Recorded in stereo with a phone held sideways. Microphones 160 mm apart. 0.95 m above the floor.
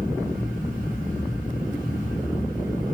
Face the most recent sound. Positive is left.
turn(degrees=55)  # may be behind; listen again after turning